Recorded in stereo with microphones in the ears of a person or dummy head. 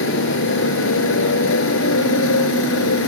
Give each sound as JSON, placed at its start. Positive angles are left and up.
{"t": 0.0, "sound": "a motorcycle", "side_deg": 75}